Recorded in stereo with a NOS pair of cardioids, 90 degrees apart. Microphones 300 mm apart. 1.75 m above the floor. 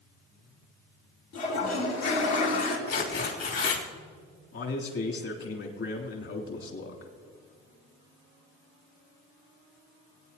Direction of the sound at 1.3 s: 70° left.